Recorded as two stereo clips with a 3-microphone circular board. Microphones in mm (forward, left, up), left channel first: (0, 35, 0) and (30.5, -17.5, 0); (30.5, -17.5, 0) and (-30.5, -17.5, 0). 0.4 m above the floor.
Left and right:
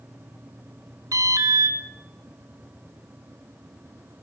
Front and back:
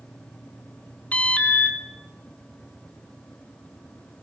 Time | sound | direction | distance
1.1 | an alarm | 65° right | 4 m